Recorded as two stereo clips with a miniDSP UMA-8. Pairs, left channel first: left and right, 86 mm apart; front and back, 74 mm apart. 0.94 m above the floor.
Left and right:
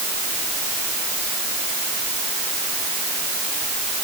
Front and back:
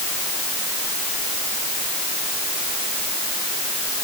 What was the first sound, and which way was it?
Only background noise.